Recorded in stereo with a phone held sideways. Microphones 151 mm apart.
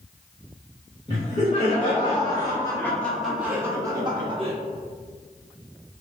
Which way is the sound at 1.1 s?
50° left (ahead or behind).